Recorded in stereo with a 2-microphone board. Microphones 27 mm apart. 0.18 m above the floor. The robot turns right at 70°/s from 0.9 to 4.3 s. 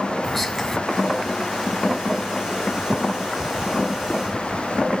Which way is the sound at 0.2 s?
Centre (ahead or behind).